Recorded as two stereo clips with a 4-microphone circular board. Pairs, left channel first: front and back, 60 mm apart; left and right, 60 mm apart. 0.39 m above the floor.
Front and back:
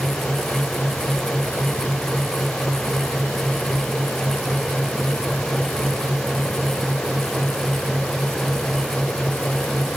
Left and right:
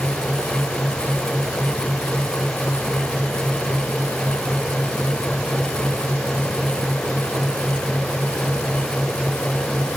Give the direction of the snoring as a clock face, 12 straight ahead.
No snoring in this recording.